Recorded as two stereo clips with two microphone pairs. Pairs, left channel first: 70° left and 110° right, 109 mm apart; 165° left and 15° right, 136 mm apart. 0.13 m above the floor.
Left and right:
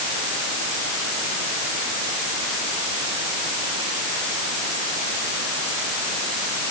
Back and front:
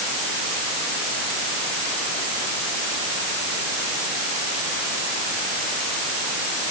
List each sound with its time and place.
Only background noise.